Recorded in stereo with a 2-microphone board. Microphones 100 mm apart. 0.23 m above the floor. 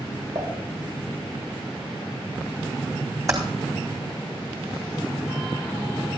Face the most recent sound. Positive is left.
turn(degrees=-35)  # may be behind; listen again after turning